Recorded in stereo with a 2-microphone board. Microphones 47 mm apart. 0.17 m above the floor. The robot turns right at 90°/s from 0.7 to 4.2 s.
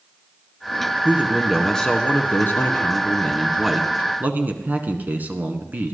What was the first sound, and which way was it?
A man speaking, 40° right.